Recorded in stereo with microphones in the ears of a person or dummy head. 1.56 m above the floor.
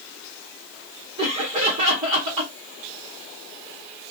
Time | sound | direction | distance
1.2 | laughter | 30° right (ahead or behind) | 0.9 m